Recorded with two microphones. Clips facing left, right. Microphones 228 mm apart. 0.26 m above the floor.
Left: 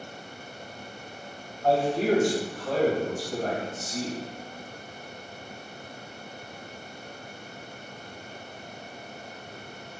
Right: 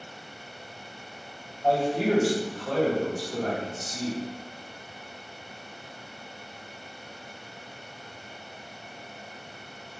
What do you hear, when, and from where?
1.6 s a man speaking: 20° right (ahead or behind), 1.7 m; by 4.2 s 45° left (ahead or behind), 2 m